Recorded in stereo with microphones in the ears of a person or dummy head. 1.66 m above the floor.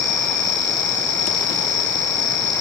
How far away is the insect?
About 8 m.